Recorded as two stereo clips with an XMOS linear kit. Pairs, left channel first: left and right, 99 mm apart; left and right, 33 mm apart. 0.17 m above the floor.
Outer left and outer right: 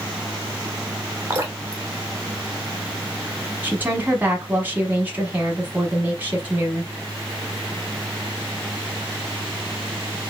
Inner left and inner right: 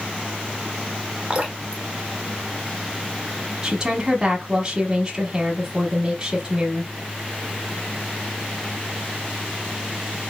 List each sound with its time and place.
1.3 s dripping: 30° right (ahead or behind), 1.3 m
3.6 s a woman speaking: 20° right (ahead or behind), 1.0 m